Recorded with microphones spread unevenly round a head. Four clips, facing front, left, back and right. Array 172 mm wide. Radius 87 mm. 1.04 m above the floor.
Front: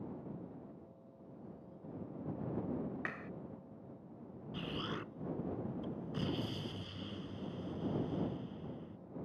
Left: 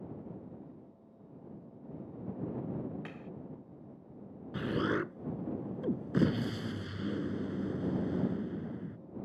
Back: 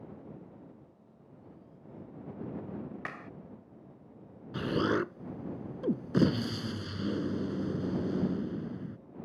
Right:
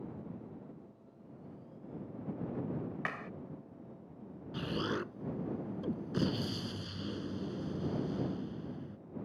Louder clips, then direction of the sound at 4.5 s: Left 4 dB, back 13 dB; 160° left.